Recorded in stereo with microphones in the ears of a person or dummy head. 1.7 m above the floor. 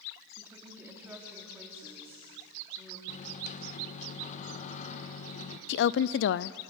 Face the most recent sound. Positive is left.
turn(degrees=70)  # may be behind; listen again after turning